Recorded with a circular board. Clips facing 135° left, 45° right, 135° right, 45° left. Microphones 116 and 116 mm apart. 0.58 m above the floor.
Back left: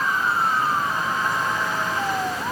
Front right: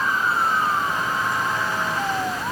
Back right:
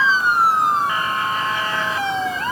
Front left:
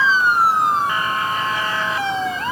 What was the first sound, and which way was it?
Only background noise.